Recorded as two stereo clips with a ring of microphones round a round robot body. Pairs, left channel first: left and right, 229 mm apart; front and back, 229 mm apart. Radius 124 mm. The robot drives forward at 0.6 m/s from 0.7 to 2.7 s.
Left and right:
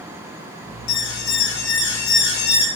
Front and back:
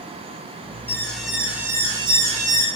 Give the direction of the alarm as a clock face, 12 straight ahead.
9 o'clock.